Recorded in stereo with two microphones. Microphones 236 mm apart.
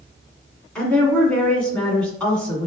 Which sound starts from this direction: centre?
A woman speaking, at 0.8 s.